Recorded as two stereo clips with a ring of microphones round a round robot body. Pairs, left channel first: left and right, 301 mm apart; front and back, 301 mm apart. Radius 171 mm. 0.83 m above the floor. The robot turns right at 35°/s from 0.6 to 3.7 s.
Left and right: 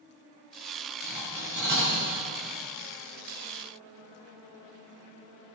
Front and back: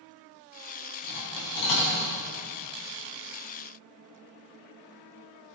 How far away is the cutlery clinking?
About 4 m.